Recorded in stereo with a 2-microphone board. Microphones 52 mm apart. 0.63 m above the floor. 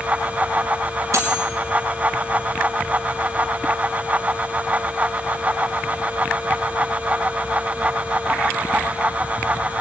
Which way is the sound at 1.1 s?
65° right (ahead or behind).